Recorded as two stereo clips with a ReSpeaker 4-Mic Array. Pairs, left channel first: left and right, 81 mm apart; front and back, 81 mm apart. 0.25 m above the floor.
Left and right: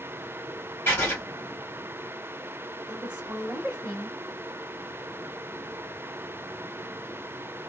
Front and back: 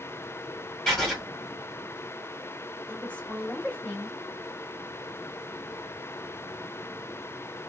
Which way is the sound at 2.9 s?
45° right.